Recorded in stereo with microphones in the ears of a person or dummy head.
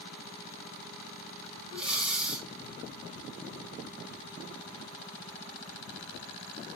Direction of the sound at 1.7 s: 5° right (ahead or behind).